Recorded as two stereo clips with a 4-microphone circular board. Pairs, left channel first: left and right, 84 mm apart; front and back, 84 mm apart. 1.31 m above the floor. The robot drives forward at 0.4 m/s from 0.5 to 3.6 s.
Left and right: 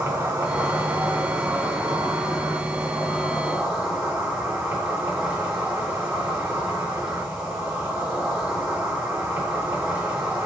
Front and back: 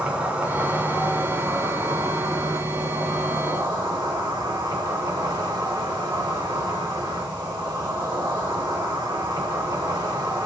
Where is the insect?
120° right, 1.2 m; by 10.5 s 160° right, 2.0 m.